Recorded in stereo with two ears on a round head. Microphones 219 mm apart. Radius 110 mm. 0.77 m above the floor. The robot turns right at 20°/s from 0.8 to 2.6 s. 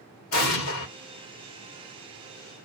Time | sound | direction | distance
0.3 | an explosion | 70° left (ahead or behind) | 1.1 m